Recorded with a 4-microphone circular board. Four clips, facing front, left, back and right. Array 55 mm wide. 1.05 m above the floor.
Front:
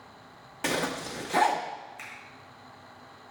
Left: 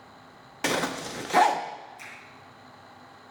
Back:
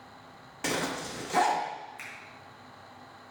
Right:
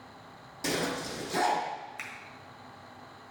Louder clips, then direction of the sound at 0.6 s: Left 4 dB, front 2 dB; 80° left.